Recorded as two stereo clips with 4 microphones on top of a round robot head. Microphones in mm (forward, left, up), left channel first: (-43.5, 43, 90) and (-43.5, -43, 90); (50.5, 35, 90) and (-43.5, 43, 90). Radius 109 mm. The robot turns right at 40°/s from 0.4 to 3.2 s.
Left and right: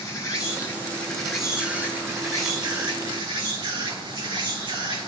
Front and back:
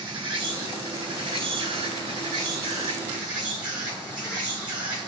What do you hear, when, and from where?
0.0 s an insect: 140° left, 4.5 m; by 5.1 s 105° right, 4.5 m